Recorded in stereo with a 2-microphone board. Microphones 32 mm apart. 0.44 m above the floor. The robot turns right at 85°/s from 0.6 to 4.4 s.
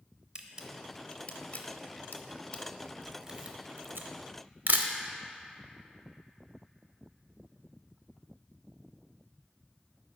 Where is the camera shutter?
25° right (ahead or behind), 0.5 m; by 4.9 s 65° right (ahead or behind), 0.5 m.